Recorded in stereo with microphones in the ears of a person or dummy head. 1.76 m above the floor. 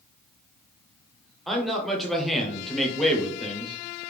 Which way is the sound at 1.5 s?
Centre (ahead or behind).